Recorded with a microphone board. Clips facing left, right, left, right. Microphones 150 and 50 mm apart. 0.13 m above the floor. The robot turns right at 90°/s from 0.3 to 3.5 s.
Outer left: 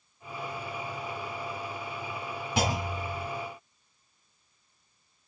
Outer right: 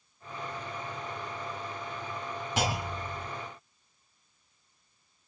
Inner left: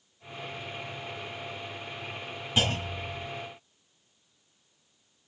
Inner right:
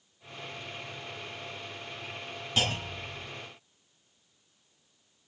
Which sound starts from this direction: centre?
A clunk, at 2.6 s.